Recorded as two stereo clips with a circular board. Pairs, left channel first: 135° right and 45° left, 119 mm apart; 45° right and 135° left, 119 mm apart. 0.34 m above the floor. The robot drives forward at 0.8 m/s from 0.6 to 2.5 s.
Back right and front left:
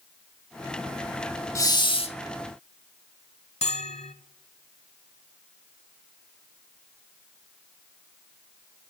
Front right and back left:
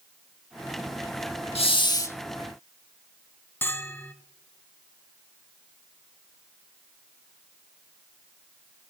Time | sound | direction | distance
1.6 | a hiss | 75° right | 0.7 m
3.6 | a bell | 115° right | 0.7 m